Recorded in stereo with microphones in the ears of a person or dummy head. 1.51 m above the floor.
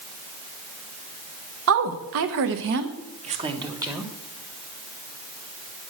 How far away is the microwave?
No microwave in this recording.